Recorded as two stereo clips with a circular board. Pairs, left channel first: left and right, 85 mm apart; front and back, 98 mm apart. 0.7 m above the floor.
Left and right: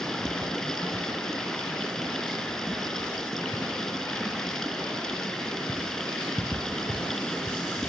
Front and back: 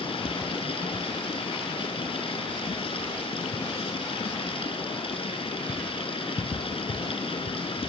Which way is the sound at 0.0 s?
5° left.